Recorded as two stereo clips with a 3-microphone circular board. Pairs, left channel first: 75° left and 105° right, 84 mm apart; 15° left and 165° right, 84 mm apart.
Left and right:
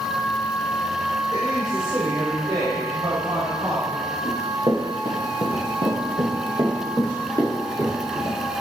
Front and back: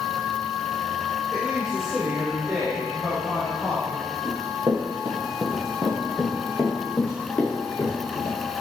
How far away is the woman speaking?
About 1.9 m.